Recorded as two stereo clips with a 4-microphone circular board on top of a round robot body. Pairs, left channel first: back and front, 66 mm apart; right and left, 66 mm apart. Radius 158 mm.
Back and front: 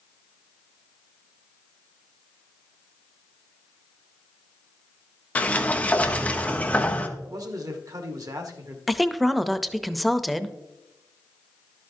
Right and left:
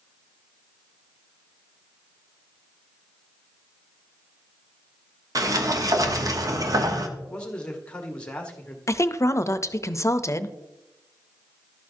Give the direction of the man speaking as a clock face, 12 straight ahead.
1 o'clock.